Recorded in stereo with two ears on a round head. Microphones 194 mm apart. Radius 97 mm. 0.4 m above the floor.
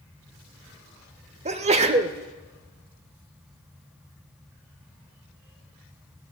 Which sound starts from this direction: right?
A sneeze, at 1.4 s.